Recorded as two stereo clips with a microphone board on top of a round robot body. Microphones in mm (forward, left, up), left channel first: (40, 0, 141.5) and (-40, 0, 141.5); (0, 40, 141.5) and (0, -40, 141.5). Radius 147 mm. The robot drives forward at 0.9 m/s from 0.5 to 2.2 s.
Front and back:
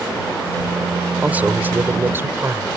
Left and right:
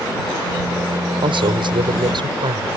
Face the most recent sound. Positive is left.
turn(degrees=-115)